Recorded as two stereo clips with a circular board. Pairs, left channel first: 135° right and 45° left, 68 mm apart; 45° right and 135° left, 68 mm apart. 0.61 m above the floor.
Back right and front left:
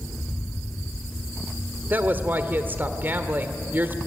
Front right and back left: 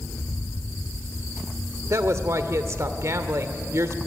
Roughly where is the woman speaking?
Left.